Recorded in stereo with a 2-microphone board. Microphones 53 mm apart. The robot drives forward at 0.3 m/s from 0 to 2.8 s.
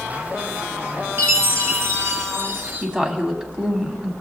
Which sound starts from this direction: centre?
A woman speaking, at 2.8 s.